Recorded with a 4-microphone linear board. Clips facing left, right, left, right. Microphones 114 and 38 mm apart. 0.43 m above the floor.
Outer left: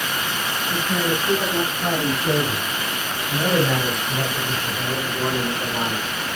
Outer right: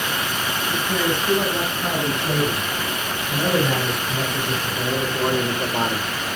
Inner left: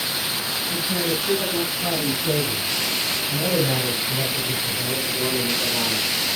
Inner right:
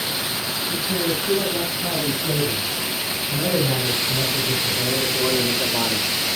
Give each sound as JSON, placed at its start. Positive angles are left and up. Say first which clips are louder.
{"t": 0.7, "sound": "a man speaking", "louder": "even, inner right 1 dB", "side_deg": 5, "distance_m": 6.5}